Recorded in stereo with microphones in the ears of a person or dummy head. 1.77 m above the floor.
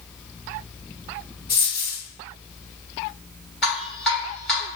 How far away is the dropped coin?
About 1.8 m.